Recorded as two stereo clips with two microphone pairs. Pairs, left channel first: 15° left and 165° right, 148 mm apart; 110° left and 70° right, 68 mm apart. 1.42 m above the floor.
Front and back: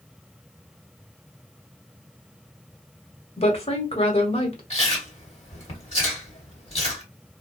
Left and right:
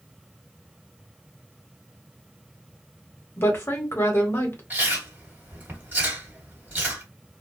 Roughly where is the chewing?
Ahead.